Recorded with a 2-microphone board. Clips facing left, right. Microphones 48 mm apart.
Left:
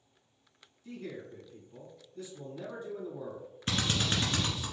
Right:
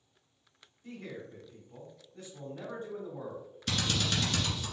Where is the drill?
30° left (ahead or behind), 1.4 m.